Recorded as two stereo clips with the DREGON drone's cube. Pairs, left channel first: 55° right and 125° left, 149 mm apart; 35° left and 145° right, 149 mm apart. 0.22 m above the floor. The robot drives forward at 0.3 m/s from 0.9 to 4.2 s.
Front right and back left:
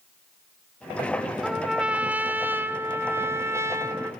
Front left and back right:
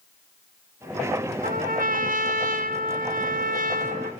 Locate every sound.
1.4 s a trumpet: 150° right, 0.8 m; by 4.1 s 165° right, 1.5 m